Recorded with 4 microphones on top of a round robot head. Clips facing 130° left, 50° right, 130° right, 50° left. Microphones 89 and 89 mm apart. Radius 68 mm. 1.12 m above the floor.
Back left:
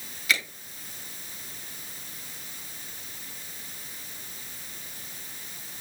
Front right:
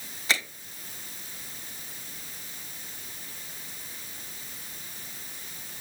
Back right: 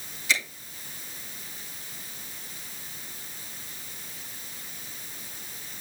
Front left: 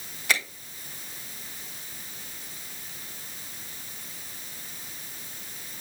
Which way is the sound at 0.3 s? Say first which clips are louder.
Back left 1 dB, front left 1 dB; 10° left.